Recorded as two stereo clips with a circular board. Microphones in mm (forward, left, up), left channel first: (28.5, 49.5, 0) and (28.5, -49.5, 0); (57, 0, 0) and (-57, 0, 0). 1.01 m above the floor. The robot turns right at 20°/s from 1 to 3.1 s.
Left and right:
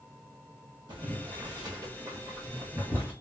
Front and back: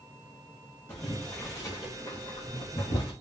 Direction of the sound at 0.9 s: 65° right.